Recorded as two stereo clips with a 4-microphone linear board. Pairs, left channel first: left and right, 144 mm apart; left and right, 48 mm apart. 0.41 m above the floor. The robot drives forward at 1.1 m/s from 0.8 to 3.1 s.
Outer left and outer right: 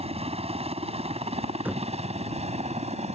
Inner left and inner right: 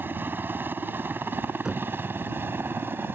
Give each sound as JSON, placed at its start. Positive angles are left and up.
{"t": 0.0, "sound": "a helicopter", "side_deg": -45}
{"t": 1.6, "sound": "knocking", "side_deg": -10}